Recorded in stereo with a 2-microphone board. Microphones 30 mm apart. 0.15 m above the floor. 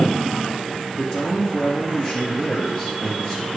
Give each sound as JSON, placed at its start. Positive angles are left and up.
{"t": 0.9, "sound": "a man speaking", "side_deg": 35, "distance_m": 3.0}